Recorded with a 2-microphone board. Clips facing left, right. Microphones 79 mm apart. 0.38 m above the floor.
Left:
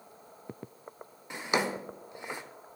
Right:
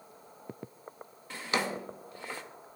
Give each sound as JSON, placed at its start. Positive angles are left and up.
{"t": 1.3, "sound": "a drawer", "side_deg": 20, "distance_m": 0.6}